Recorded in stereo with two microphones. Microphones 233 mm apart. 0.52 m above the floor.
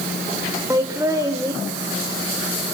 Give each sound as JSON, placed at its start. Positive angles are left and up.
{"t": 0.7, "sound": "laughter", "side_deg": -15, "distance_m": 1.7}